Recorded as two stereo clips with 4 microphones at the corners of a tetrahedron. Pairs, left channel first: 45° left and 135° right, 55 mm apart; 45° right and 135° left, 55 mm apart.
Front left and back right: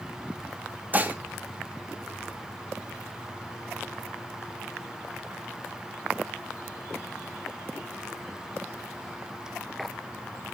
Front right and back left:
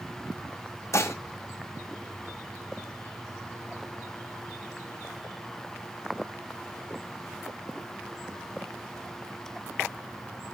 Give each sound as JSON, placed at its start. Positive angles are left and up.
{"t": 0.9, "sound": "dishes clattering", "azimuth_deg": -80, "distance_m": 1.5}